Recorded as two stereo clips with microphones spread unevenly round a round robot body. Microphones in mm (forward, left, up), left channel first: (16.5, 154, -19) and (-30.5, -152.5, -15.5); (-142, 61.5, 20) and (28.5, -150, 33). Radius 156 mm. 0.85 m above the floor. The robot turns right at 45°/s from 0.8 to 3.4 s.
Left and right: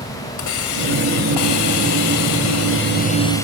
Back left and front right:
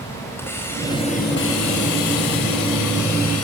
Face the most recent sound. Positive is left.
turn(degrees=165)